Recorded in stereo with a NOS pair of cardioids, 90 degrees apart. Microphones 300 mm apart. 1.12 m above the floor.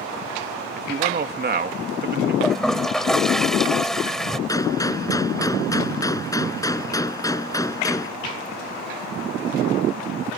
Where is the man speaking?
35° right.